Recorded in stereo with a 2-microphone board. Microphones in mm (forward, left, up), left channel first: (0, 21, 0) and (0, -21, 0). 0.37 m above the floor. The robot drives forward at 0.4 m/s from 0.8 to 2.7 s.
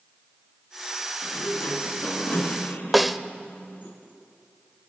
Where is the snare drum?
5° right (ahead or behind), 0.7 m.